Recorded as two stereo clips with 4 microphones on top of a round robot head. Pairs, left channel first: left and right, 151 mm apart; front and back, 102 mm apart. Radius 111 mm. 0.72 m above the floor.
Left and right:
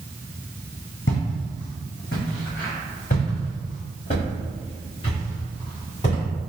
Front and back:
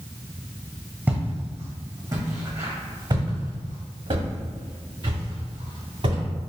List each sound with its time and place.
1.1 s footsteps: 110° left, 1.5 m; by 6.2 s 155° left, 3.5 m